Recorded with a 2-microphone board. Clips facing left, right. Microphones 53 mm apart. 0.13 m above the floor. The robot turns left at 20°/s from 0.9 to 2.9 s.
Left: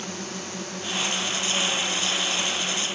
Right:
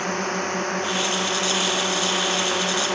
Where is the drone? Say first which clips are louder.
Right 10 dB; 50° right; by 3.0 s 90° right.